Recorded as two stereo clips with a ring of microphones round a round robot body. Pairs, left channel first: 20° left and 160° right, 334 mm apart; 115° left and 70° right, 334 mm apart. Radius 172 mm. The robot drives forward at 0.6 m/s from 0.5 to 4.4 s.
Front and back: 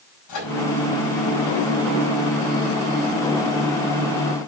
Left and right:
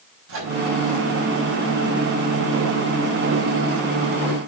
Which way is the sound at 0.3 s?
15° right.